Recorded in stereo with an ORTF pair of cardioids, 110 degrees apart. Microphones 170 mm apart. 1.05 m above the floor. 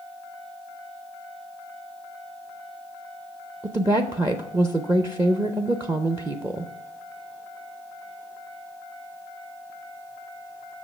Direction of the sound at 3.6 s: 15° right.